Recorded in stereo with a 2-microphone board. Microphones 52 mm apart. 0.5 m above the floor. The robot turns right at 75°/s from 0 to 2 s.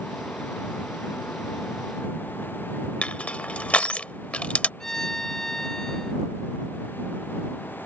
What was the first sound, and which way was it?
Crushing, 25° left (ahead or behind).